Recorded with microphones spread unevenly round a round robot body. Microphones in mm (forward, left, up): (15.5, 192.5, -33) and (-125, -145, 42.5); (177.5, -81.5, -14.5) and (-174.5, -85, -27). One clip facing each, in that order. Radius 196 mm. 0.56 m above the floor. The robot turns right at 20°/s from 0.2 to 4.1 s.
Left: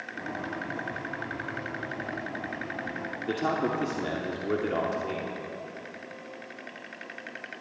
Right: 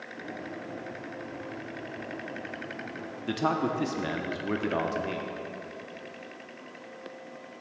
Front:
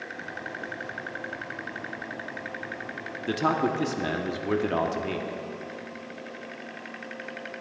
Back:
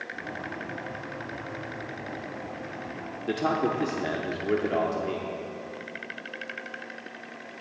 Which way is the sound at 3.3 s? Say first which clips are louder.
Even, even; 55° right.